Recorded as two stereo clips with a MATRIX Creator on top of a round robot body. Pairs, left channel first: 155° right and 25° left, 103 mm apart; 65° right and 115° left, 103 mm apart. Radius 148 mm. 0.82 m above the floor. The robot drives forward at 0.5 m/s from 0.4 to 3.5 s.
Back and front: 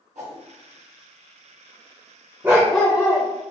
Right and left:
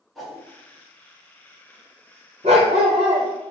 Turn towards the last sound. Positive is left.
turn(degrees=150)